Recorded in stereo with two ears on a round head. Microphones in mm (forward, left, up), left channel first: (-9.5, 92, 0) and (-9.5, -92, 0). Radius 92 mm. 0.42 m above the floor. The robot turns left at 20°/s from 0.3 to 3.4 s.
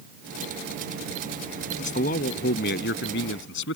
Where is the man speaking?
140° left; by 3.8 s 110° left.